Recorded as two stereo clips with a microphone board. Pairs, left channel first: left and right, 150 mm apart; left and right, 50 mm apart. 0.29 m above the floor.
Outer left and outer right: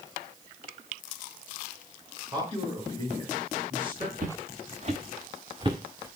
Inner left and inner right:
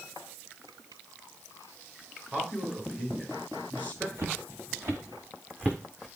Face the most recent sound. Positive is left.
turn(degrees=-15)  # may be behind; listen again after turning